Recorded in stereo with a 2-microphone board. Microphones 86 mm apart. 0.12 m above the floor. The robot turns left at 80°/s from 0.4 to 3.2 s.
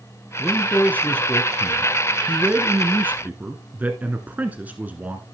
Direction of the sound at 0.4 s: 15° left (ahead or behind).